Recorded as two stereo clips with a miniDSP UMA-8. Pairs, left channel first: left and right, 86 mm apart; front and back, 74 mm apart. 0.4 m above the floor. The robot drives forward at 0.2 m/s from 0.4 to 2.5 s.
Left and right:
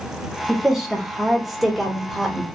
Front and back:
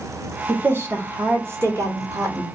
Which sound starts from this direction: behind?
A woman speaking, at 0.5 s.